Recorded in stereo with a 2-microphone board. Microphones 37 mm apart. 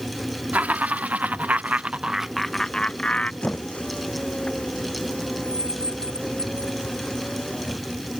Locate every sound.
0.5 s laughter: 50° right (ahead or behind); by 3.3 s 35° left (ahead or behind)
3.4 s a squeak: 35° left (ahead or behind)